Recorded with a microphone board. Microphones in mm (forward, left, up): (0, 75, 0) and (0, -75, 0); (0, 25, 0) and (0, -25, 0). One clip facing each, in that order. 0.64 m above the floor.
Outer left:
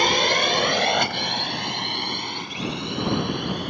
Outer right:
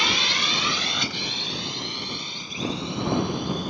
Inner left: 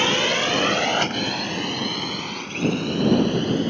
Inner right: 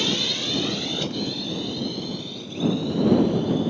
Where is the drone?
55° left (ahead or behind); by 3.7 s 70° left (ahead or behind).